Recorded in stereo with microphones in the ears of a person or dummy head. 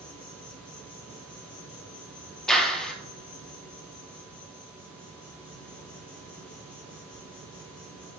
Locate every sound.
0.0 s an insect: 5° left (ahead or behind), 2.5 m
2.5 s a clap: centre (ahead or behind), 1.0 m